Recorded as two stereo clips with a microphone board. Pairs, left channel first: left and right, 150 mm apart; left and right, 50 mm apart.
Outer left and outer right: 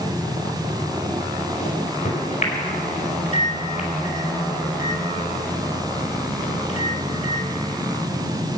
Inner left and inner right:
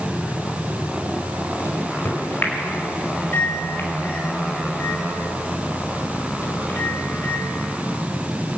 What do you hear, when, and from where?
1.6 s a microwave: 65° left (ahead or behind), 4.5 m